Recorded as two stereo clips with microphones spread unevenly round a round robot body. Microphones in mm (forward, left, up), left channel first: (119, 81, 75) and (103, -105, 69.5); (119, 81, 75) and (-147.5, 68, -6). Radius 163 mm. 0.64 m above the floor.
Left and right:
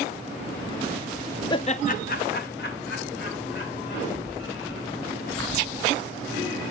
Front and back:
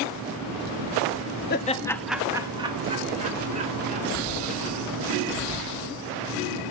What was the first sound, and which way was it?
Laughter, 45° left.